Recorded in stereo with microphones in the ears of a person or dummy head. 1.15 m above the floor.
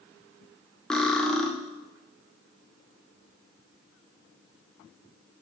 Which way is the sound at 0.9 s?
5° left (ahead or behind).